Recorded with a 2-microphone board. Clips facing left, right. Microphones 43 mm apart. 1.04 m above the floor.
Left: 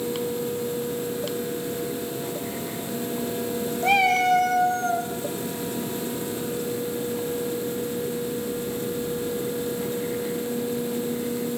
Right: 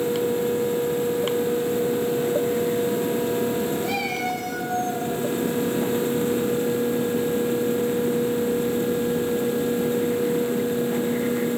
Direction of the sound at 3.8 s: 50° left (ahead or behind).